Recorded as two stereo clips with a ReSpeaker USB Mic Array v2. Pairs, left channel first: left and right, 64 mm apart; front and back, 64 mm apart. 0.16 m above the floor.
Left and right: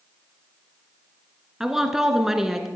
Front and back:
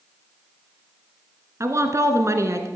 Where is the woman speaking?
170° right, 1.5 m.